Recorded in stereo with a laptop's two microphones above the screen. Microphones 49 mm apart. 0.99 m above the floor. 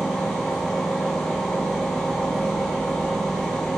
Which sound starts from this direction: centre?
A machine running, at 0.0 s.